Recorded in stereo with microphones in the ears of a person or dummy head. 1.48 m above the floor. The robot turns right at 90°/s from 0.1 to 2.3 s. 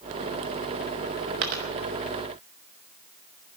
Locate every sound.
1.4 s a dropped coin: 45° right (ahead or behind), 1.0 m